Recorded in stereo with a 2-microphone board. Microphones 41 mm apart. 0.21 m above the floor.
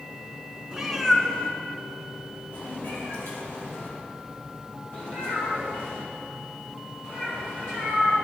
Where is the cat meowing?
15° right (ahead or behind), 1.4 m; by 8.2 s 70° left (ahead or behind), 12 m.